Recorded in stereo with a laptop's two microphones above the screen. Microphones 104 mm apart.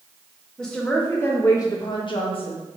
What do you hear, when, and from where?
0.6 s a woman speaking: 5° left (ahead or behind), 1.6 m; by 2.6 s 60° left (ahead or behind), 1.3 m